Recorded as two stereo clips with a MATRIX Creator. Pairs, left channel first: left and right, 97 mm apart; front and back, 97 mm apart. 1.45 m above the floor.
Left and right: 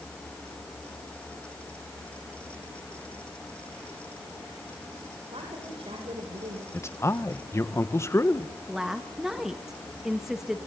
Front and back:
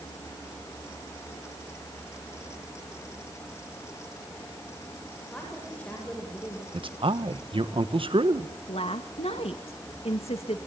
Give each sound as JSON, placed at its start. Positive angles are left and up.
{"t": 5.3, "sound": "a woman speaking", "azimuth_deg": -75, "distance_m": 7.5}
{"t": 6.7, "sound": "a man speaking", "azimuth_deg": 150, "distance_m": 1.6}
{"t": 8.7, "sound": "a woman speaking", "azimuth_deg": -5, "distance_m": 2.0}